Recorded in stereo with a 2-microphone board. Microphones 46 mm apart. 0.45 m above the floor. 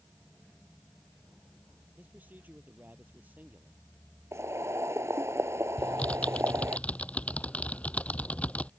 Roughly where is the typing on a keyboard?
Left.